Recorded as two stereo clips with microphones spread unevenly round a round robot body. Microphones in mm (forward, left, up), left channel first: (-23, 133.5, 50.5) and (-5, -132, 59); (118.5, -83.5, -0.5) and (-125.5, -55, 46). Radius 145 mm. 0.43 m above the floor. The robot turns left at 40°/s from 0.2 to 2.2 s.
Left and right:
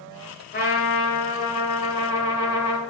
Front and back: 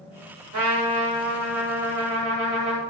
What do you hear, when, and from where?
0.5 s a trumpet: 145° left, 2 m; by 2.8 s 80° left, 2 m